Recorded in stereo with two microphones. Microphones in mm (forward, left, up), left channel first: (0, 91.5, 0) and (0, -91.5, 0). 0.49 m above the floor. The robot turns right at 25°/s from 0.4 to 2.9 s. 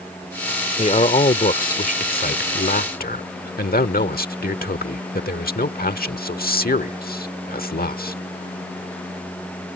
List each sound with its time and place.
0.8 s a man speaking: 45° left; by 8.2 s 95° left